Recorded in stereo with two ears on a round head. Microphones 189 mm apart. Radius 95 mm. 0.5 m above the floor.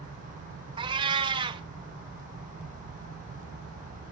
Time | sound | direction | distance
0.8 | a cat meowing | 25° right (ahead or behind) | 0.9 m